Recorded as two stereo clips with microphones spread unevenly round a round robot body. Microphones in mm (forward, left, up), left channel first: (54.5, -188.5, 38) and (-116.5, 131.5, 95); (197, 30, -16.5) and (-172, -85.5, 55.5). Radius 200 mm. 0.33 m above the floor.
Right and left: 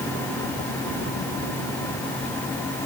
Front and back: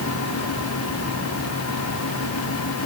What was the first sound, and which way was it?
Only background noise.